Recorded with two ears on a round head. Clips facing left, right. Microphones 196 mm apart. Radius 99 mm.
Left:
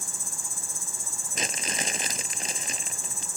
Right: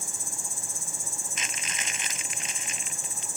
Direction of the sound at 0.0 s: 70° left (ahead or behind).